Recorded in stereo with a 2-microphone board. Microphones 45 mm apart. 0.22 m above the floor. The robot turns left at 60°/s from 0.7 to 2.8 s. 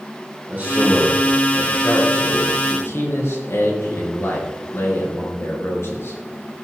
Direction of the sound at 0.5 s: 140° right.